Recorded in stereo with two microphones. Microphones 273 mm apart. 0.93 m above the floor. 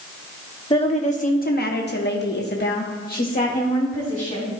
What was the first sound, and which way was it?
A woman speaking, 20° left (ahead or behind).